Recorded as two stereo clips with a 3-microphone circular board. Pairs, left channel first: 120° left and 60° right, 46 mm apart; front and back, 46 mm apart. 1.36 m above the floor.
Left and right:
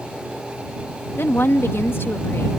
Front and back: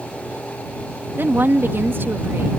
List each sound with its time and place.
1.2 s a woman speaking: 145° left